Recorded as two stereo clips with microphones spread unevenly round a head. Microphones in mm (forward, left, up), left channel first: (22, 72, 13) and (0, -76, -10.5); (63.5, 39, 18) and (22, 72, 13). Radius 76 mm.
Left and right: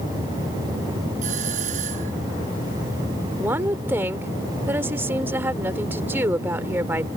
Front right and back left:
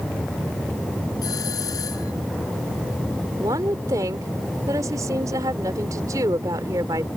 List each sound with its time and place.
1.2 s a doorbell: 55° right
3.4 s a woman speaking: 175° right